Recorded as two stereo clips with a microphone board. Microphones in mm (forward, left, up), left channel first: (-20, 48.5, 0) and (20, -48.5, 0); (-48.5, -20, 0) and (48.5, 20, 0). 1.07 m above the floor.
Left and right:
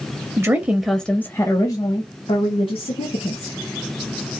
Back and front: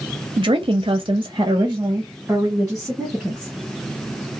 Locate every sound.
0.4 s a woman speaking: 10° right, 0.6 m; by 3.5 s 105° left, 1.3 m